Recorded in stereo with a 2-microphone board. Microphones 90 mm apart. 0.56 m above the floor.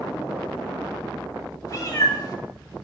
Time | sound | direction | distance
1.7 | a cat meowing | 45° left (ahead or behind) | 0.6 m